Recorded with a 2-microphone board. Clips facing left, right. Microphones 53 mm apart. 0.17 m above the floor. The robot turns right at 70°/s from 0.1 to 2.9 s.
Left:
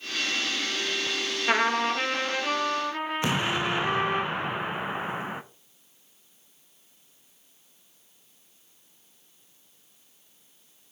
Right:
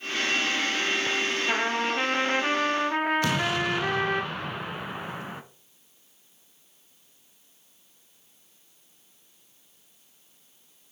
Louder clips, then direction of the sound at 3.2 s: Right 1 dB; 25° left (ahead or behind).